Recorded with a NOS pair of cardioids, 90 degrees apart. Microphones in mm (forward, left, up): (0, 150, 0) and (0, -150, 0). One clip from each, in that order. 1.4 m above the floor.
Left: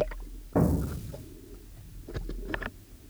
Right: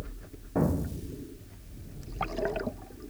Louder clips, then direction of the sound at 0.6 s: Left 2 dB; 20° left.